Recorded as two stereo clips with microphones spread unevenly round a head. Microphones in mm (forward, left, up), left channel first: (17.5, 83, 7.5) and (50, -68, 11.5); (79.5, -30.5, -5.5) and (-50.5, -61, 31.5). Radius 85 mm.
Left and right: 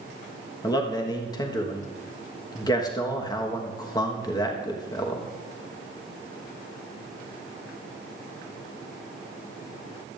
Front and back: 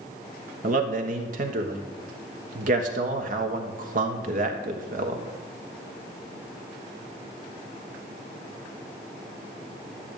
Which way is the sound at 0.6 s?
160° left.